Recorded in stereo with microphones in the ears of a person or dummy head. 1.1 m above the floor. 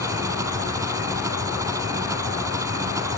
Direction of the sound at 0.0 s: 15° right (ahead or behind).